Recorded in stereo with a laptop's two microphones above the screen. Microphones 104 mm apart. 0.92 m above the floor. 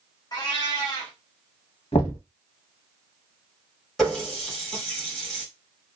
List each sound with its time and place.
0.3 s a cat meowing: 40° left (ahead or behind), 0.9 m
1.9 s knocking: 70° left (ahead or behind), 0.8 m
4.0 s a running tap: 5° left (ahead or behind), 1.2 m